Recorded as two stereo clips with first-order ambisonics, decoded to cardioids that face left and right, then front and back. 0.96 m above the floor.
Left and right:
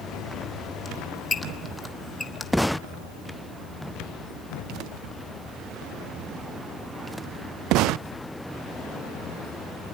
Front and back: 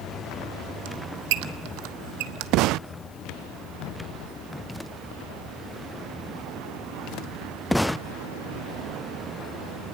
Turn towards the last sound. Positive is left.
turn(degrees=175)